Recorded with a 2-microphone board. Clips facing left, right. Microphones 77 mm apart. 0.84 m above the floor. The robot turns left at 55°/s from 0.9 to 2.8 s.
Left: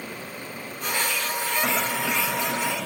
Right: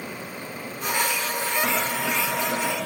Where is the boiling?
15° left, 5 m; by 2.9 s 50° right, 5 m.